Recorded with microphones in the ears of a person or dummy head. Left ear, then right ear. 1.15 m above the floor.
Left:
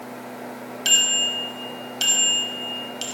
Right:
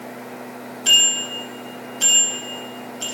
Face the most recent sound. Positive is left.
turn(degrees=45)  # may be behind; listen again after turning